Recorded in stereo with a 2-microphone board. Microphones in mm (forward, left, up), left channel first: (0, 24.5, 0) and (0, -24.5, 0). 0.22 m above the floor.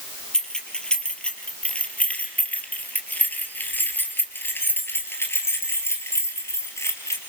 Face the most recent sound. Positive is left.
turn(degrees=75)  # may be behind; listen again after turning